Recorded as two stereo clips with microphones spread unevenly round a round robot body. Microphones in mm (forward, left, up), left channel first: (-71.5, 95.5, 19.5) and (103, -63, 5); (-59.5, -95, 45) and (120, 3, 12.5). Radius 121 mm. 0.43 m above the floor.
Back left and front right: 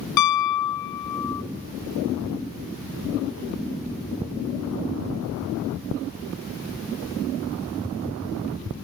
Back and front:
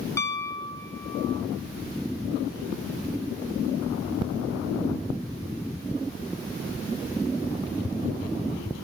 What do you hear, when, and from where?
0.2 s a piano: 130° left, 0.5 m